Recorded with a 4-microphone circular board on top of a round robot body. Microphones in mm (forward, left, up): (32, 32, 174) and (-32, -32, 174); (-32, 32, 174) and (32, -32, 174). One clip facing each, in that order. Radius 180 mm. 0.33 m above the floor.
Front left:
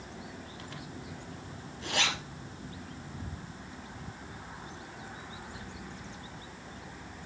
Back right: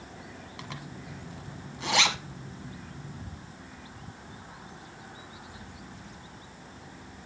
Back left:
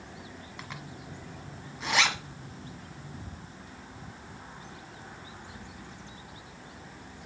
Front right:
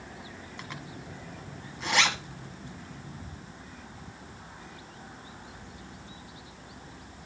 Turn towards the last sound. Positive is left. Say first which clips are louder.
# back right 4 dB, front right 1 dB
turn(degrees=-135)